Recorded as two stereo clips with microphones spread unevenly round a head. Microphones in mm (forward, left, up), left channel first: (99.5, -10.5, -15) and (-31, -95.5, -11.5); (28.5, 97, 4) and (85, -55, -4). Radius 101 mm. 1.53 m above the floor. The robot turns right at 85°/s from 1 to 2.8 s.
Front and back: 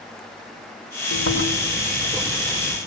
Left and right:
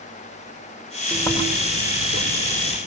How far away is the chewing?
About 7 m.